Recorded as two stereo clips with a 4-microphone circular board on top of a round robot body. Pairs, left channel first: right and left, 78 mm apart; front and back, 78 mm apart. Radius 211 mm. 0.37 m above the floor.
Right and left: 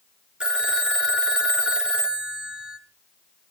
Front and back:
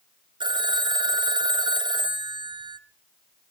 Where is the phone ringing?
170° left, 1.3 m.